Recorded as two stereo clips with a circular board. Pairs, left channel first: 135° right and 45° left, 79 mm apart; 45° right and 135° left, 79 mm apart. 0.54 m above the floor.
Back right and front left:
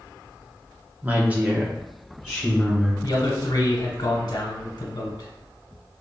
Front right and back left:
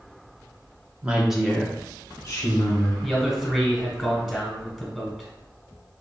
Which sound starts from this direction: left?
A woman speaking, at 1.0 s.